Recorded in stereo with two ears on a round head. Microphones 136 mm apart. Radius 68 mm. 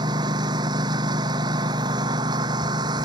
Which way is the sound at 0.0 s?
30° right (ahead or behind).